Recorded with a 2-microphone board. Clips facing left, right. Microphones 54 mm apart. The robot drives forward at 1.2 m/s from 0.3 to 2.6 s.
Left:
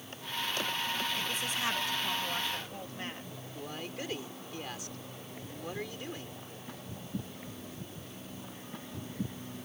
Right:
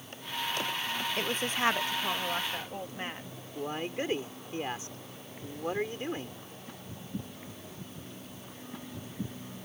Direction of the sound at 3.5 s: 30° right (ahead or behind).